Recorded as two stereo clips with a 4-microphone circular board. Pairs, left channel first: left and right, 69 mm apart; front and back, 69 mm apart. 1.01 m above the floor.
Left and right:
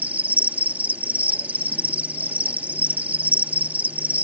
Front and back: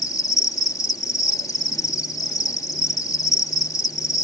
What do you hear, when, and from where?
0.0 s an insect: 25° right